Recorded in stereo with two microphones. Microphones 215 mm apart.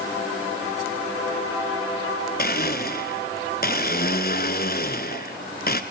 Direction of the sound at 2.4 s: 45° left (ahead or behind).